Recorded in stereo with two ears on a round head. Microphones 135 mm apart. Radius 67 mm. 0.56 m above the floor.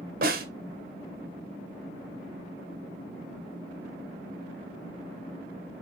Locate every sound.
0.2 s a snare drum: 60° right (ahead or behind), 1.9 m